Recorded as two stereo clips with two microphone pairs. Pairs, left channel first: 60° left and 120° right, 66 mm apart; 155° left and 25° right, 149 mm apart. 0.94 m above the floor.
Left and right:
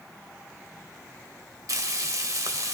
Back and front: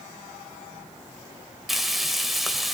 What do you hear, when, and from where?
1.7 s frying: 115° right, 1.1 m